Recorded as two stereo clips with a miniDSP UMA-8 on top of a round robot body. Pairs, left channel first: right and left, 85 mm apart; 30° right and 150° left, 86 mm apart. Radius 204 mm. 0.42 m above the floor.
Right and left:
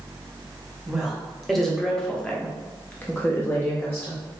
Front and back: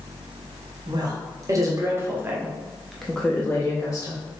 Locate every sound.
0.9 s a woman speaking: straight behind, 1.6 m; by 4.2 s 40° right, 1.2 m